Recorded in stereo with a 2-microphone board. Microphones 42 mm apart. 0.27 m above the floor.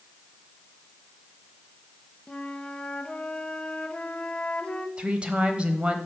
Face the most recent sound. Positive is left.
turn(degrees=-25)  # may be behind; listen again after turning